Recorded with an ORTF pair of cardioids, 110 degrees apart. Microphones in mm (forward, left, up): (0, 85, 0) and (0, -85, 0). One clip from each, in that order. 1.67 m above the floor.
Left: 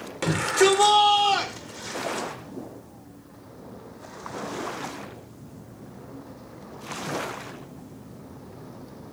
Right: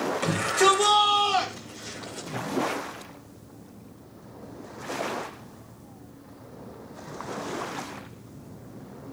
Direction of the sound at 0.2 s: 25° left.